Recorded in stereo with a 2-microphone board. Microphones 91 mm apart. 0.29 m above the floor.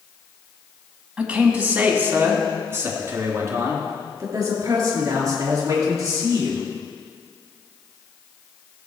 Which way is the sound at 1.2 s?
10° right (ahead or behind).